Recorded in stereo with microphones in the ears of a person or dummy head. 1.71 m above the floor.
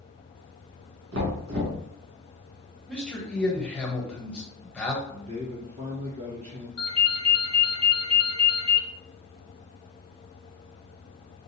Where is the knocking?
75° right (ahead or behind), 1.6 m.